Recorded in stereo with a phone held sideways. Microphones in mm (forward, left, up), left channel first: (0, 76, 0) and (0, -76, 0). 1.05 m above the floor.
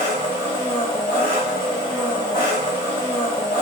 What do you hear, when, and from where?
0.0 s an engine running: 30° left (ahead or behind), 1.4 m